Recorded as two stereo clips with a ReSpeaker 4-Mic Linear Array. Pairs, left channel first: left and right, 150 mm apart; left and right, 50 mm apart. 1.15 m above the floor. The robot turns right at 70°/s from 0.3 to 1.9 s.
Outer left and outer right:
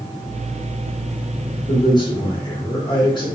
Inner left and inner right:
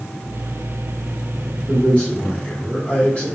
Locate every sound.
1.7 s a man speaking: 40° left (ahead or behind), 1.0 m; by 3.3 s 30° left (ahead or behind), 1.0 m